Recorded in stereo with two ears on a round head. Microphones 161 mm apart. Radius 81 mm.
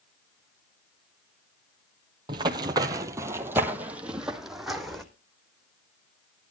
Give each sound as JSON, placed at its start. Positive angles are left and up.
{"t": 2.3, "sound": "running footsteps", "side_deg": -25, "distance_m": 1.3}